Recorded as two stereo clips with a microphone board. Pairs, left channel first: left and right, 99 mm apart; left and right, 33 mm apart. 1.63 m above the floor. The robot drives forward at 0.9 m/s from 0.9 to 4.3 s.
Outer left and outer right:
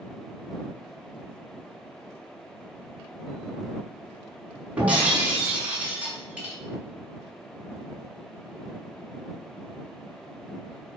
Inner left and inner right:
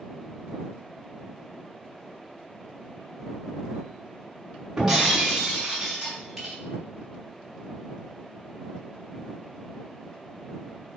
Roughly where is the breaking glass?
Centre.